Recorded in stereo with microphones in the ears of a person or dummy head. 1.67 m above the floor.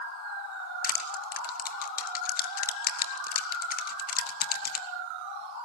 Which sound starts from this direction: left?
Crushing, at 0.8 s.